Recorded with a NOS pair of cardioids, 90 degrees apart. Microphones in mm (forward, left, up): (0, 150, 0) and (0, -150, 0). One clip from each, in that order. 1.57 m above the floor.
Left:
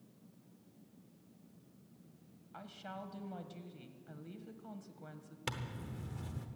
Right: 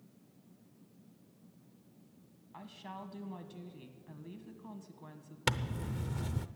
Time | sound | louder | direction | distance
2.5 | a woman speaking | even | 5° left | 1.7 m
5.5 | a zipper | right 8 dB | 40° right | 0.7 m